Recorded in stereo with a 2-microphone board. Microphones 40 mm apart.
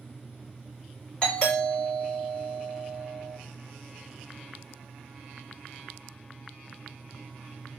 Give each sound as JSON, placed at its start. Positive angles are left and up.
{"t": 1.2, "sound": "a doorbell", "side_deg": 25, "distance_m": 1.8}